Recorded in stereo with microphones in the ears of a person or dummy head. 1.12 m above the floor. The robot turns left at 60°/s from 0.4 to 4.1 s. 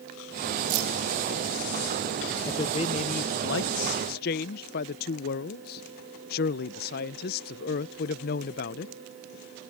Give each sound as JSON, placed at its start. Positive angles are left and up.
{"t": 0.7, "sound": "keys jangling", "side_deg": -85}
{"t": 2.5, "sound": "a man speaking", "azimuth_deg": 160}